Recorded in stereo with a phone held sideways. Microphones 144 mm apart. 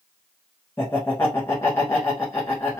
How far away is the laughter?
About 0.7 m.